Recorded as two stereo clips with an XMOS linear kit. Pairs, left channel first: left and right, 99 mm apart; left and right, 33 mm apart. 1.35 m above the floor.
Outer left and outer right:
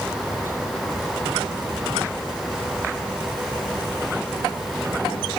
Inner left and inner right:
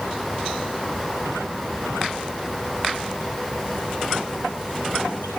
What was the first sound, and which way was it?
Only background noise.